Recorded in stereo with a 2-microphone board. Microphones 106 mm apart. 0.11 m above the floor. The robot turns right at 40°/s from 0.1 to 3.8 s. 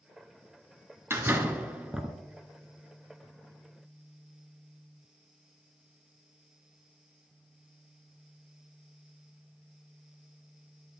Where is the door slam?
25° right (ahead or behind), 0.8 m; by 2.1 s 5° right (ahead or behind), 0.8 m.